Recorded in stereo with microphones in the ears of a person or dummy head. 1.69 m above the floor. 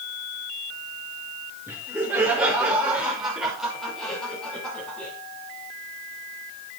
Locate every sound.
1.7 s laughter: 5° right (ahead or behind), 5 m; by 5.1 s 10° left (ahead or behind), 6 m